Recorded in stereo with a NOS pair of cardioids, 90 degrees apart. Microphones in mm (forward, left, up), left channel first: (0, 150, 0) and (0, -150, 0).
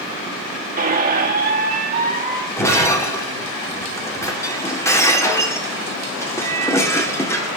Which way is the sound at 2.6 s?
10° left.